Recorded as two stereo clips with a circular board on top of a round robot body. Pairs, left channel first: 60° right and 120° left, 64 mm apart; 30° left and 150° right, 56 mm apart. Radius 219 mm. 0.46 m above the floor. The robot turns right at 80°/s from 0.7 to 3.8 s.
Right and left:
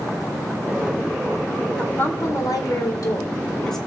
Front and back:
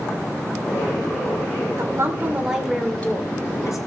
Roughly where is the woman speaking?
Behind right.